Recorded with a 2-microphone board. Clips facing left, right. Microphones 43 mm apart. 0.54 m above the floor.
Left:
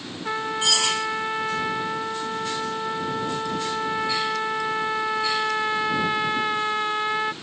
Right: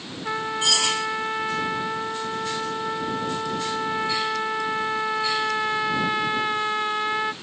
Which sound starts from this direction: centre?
A trumpet, at 0.2 s.